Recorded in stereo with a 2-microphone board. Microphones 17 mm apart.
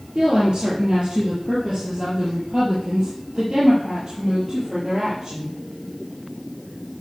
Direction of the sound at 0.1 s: 75° right (ahead or behind).